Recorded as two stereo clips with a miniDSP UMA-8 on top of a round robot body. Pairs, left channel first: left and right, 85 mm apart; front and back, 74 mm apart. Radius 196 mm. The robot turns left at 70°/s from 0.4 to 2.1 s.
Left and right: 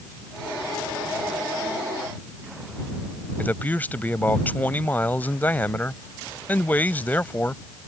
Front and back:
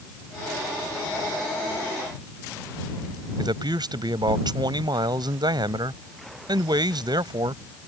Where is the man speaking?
160° left.